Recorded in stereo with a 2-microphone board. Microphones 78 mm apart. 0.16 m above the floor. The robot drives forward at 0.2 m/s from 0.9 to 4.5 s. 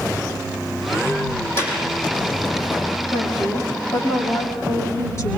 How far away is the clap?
About 5.5 m.